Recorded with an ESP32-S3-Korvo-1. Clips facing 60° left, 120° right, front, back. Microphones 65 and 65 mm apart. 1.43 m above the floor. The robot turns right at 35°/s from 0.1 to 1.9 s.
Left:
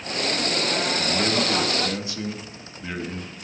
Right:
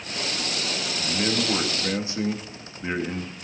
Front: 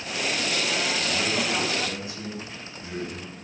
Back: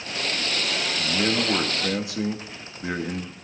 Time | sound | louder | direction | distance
1.0 | a man speaking | left 3 dB, back 2 dB | 140° left | 2.5 m